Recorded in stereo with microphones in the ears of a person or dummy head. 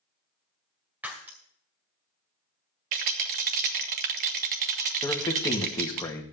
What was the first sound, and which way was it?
Breaking glass, 10° right (ahead or behind).